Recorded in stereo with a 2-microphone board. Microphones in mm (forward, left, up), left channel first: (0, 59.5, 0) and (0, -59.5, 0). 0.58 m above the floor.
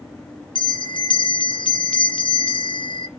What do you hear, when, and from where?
0.6 s a bell: 45° left (ahead or behind), 0.8 m